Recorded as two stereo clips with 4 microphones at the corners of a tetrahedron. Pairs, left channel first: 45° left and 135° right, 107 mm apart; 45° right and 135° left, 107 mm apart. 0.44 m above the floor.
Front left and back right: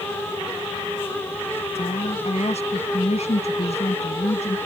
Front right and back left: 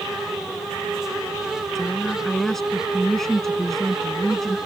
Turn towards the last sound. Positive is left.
turn(degrees=40)